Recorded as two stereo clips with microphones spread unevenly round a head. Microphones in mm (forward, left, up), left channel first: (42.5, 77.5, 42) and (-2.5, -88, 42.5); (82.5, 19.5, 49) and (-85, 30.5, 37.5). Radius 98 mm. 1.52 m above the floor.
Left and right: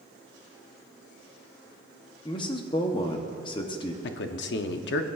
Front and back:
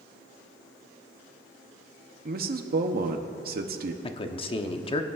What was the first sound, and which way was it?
A man speaking, 140° left.